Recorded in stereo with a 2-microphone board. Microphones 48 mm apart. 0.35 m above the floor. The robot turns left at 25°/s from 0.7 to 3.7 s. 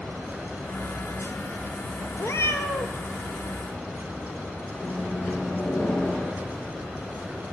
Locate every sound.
2.2 s a cat meowing: 65° left (ahead or behind), 0.6 m; by 3.0 s 60° left (ahead or behind), 0.6 m
4.8 s a microwave: 35° left (ahead or behind), 5 m